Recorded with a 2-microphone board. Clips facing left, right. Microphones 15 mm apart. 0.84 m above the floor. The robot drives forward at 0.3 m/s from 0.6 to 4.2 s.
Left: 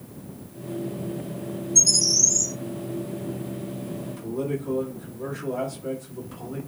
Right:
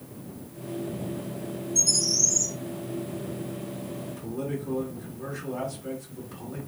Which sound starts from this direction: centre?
A man speaking, at 4.1 s.